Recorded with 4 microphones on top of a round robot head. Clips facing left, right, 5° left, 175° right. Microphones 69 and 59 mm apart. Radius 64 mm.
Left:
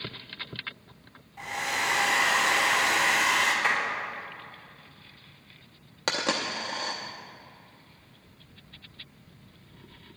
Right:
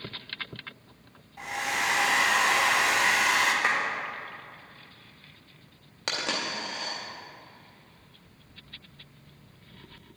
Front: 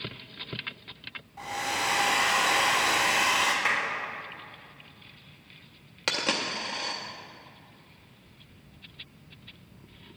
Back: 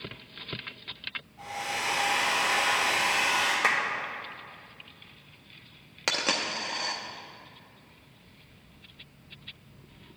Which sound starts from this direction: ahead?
A hair dryer, at 1.4 s.